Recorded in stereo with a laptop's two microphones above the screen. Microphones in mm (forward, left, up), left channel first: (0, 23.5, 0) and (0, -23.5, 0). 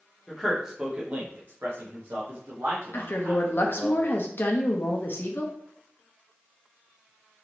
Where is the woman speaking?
50° left (ahead or behind), 0.5 m.